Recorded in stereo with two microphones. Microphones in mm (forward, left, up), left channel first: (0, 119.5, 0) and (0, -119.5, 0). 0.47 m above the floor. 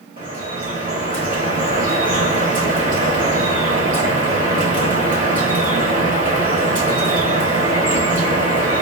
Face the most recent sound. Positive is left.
turn(degrees=-30)  # may be behind; listen again after turning